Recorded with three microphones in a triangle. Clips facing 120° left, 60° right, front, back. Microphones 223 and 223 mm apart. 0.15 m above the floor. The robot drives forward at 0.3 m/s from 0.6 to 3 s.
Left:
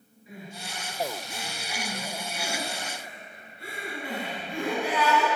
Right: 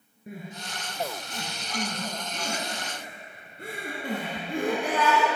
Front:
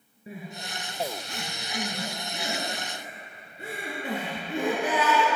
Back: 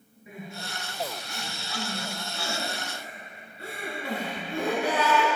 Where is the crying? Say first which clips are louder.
Right 2 dB, front 1 dB; 50° right, 2.5 m; by 5.3 s 65° right, 2.5 m.